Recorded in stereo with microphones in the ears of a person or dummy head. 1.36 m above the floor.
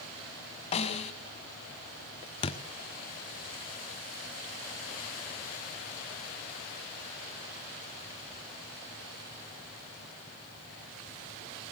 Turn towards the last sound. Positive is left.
turn(degrees=30)  # may be behind; listen again after turning